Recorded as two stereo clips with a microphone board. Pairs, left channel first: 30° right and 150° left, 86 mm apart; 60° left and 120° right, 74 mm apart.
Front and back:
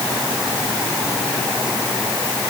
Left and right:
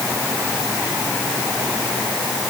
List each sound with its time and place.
Only background noise.